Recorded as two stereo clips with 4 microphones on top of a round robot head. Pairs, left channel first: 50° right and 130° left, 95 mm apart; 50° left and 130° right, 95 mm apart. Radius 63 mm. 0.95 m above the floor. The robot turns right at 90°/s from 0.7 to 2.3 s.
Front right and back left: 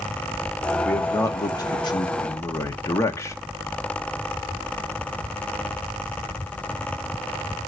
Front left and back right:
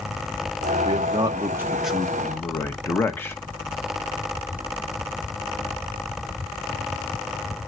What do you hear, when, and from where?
0.8 s a man speaking: 135° right, 1.1 m; by 3.4 s 5° right, 1.1 m